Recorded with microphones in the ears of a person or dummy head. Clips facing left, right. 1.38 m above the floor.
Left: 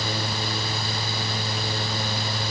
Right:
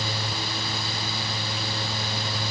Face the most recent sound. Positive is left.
No sound to turn to.